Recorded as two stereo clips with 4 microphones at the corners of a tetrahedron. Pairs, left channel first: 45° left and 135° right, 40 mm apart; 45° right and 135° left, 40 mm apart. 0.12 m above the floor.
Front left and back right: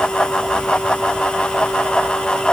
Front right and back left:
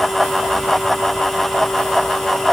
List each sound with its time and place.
Only background noise.